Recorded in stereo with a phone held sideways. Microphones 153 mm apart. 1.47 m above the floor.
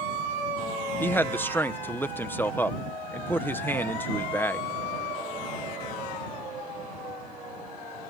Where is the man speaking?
15° left (ahead or behind).